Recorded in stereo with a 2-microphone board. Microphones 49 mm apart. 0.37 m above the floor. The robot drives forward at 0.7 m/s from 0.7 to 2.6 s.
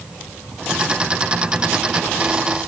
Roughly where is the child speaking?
I don't hear a child speaking.